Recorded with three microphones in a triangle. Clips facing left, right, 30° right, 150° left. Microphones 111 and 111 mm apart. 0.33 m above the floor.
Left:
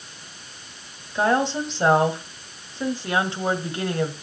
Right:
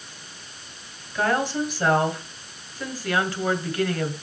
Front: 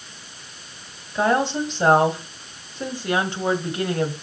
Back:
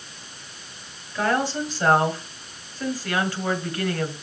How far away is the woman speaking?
About 1.8 m.